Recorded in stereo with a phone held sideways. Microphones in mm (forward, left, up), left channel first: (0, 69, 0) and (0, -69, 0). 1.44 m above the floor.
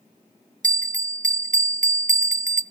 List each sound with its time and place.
0.6 s a bell: 65° right (ahead or behind), 0.6 m